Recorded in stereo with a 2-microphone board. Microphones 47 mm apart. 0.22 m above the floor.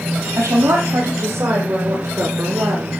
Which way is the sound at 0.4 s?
75° right (ahead or behind).